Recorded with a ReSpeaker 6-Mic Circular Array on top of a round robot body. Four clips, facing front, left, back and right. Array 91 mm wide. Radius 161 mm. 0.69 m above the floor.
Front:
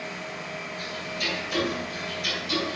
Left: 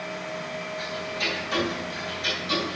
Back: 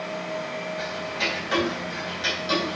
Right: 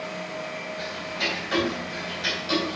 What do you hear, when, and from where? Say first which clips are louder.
0.8 s ticking: right 1 dB, back 4 dB; 150° right, 2 m